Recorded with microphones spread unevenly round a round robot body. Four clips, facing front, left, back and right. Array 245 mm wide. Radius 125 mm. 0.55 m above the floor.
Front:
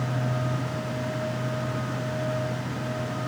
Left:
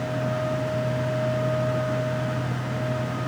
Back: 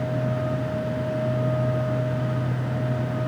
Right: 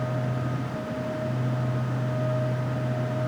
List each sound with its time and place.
Only background noise.